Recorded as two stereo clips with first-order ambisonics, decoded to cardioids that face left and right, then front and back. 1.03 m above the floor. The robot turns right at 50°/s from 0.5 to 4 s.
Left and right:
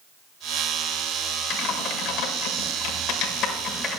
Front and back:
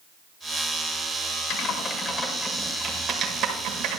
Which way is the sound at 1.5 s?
40° left.